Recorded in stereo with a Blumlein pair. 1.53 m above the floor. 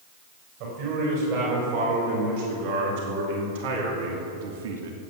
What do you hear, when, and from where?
0.6 s a man speaking: 45° right, 5.5 m; by 5.0 s 60° right, 1.4 m